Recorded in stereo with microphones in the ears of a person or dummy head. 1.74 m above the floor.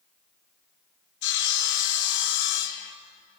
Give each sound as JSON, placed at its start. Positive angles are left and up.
{"t": 1.2, "sound": "sawing", "side_deg": 70, "distance_m": 1.7}